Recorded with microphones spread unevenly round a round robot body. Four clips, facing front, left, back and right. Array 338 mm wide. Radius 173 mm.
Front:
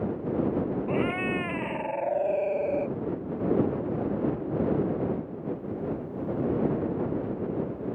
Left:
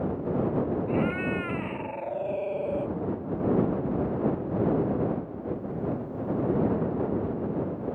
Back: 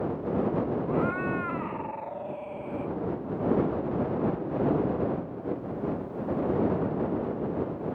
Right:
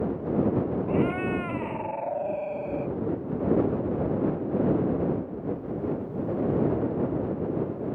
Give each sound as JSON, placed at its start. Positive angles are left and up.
{"t": 0.9, "sound": "a cat meowing", "azimuth_deg": 25}